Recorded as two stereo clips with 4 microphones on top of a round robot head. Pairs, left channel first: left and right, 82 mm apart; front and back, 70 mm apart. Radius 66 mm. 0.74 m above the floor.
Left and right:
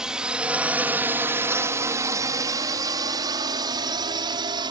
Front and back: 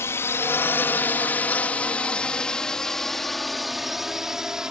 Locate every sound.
0.0 s a drone: 15° right; by 4.7 s 100° right